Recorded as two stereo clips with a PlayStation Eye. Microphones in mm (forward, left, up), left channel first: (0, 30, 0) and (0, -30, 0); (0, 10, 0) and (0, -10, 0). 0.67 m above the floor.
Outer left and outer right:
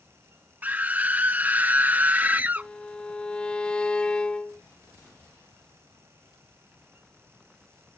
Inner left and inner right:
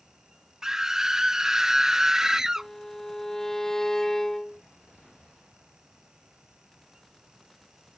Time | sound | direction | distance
0.6 | a scream | 25° right (ahead or behind) | ?
2.6 | a violin | 15° left (ahead or behind) | ?